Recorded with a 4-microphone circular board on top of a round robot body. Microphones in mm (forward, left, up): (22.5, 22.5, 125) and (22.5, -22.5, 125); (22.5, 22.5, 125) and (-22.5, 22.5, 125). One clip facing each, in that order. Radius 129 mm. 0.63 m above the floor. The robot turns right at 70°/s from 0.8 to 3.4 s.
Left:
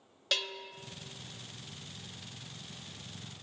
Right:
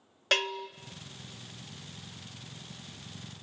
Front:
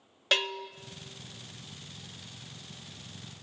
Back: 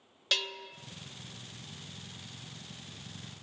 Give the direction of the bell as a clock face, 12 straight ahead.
2 o'clock.